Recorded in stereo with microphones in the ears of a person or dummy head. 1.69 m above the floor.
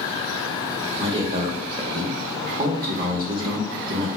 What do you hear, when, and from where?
1.0 s a man speaking: 25° right (ahead or behind), 0.8 m